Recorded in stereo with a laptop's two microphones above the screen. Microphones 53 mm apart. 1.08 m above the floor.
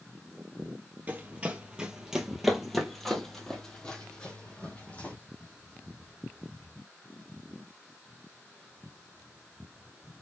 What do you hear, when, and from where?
1.1 s running footsteps: 30° right (ahead or behind), 1.3 m; by 5.2 s 25° left (ahead or behind), 2.5 m